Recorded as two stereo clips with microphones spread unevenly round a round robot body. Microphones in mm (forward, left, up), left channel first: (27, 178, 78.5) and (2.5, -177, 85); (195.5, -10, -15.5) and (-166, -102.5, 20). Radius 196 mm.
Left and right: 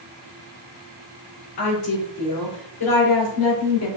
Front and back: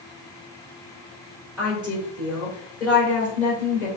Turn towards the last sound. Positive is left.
turn(degrees=100)